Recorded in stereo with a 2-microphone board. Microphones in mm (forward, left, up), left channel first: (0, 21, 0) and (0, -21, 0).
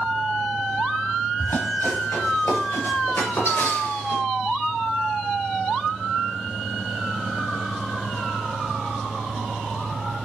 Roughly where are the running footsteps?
Left.